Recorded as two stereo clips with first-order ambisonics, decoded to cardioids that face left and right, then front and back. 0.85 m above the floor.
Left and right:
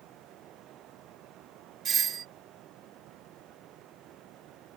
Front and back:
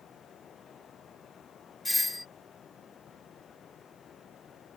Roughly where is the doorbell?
Right.